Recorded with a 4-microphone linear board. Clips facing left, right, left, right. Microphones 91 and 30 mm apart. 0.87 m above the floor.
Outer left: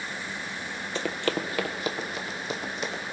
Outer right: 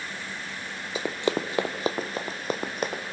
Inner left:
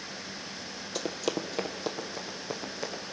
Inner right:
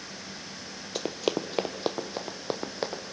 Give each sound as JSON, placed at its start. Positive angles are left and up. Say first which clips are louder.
{"t": 0.9, "sound": "running footsteps", "louder": "outer right 2 dB, inner right 3 dB", "side_deg": -10, "distance_m": 0.9}